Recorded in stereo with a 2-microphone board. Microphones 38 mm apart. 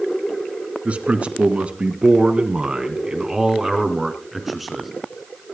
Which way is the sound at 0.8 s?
40° right (ahead or behind).